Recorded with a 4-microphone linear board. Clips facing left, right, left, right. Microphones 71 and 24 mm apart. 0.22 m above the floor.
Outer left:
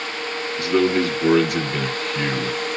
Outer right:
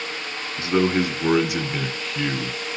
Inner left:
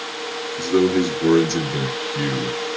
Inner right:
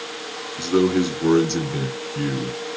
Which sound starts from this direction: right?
A man speaking, at 0.6 s.